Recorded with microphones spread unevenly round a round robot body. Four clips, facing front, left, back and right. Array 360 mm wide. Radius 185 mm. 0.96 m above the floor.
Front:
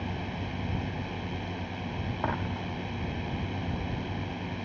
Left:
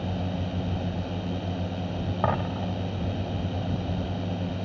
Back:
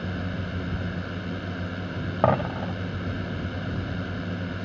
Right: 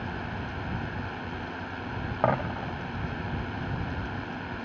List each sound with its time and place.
0.0 s a drone: 120° left
2.2 s a dropped coin: 175° left